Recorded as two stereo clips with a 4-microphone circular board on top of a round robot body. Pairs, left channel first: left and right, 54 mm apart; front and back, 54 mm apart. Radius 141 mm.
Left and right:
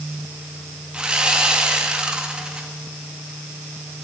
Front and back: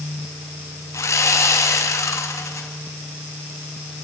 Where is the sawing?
20° right, 2.5 m.